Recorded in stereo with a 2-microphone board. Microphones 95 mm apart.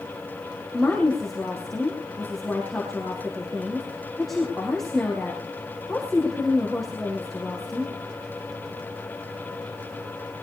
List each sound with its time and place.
0.7 s a woman speaking: centre (ahead or behind), 5.5 m